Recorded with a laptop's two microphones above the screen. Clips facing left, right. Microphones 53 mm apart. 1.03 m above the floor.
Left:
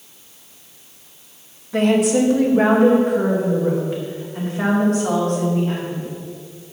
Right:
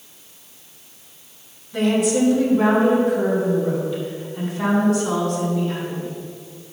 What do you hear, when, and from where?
1.7 s a woman speaking: 75° left (ahead or behind), 1.9 m; by 6.1 s 60° left (ahead or behind), 6 m